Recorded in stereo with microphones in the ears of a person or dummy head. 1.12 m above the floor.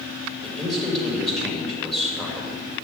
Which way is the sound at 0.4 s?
Centre (ahead or behind).